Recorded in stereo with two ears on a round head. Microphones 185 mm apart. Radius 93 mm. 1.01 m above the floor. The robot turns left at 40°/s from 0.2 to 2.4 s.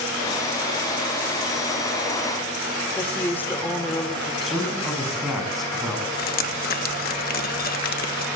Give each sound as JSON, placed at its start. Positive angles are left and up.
{"t": 3.0, "sound": "a woman speaking", "side_deg": 10, "distance_m": 2.5}
{"t": 4.4, "sound": "a man speaking", "side_deg": 0, "distance_m": 7.0}
{"t": 6.2, "sound": "dripping", "side_deg": 45, "distance_m": 1.0}